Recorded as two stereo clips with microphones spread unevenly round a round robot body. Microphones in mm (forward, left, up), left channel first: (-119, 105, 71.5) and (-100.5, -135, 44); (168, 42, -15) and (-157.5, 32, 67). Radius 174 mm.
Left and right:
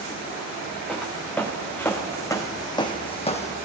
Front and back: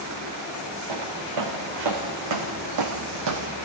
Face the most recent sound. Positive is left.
turn(degrees=150)